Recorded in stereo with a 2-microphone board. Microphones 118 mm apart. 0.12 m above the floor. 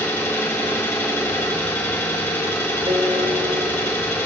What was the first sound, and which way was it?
An engine running, 20° left (ahead or behind).